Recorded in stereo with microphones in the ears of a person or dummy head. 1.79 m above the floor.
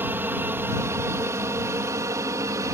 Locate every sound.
0.0 s an aircraft: 5° right (ahead or behind); by 2.7 s 10° right (ahead or behind)